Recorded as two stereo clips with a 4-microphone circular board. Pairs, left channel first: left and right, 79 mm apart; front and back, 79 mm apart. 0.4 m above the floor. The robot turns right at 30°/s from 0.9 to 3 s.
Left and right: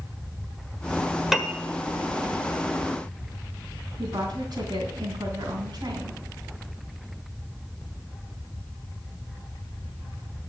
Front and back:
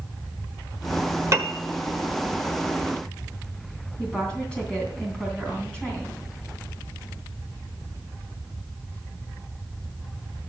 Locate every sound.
1.3 s a piano: 175° right, 1.4 m; by 1.6 s 165° right, 1.4 m
4.0 s a woman speaking: 75° right, 3 m